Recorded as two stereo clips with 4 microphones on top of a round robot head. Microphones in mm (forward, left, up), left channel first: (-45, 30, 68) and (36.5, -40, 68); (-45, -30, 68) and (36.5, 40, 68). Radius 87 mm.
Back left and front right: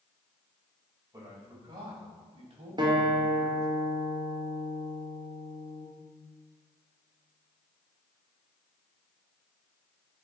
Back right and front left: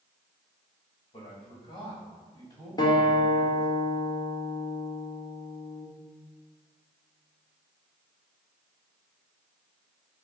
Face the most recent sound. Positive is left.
turn(degrees=-90)